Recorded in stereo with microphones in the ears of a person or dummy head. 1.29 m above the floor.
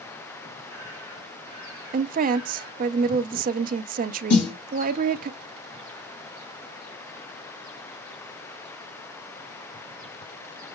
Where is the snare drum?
55° left (ahead or behind), 1.3 m.